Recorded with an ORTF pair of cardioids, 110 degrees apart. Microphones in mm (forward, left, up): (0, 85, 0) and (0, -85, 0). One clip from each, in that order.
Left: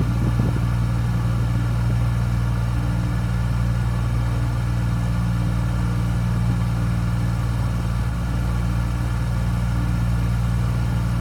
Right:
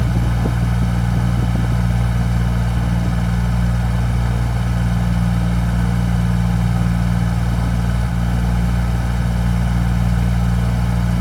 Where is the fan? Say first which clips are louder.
Right 3 dB; 40° right, 1.1 m.